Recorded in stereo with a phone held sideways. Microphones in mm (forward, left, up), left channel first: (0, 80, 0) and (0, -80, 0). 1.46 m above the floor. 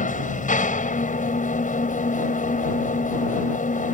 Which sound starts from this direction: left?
An engine running, at 0.0 s.